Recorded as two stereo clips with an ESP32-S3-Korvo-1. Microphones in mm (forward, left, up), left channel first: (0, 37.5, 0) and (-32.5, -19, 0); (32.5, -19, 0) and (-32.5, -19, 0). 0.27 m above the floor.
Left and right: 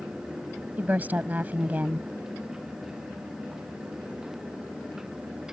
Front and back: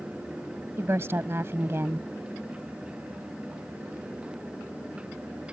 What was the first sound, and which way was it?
A woman speaking, 165° right.